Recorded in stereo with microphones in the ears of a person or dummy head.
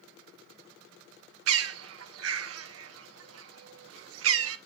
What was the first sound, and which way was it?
A bird, 75° right (ahead or behind).